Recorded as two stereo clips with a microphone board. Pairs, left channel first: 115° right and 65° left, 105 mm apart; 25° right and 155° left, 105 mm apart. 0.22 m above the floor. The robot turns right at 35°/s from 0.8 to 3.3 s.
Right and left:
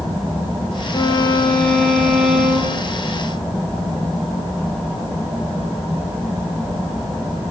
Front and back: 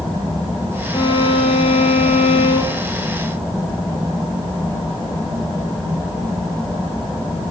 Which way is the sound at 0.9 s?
65° right.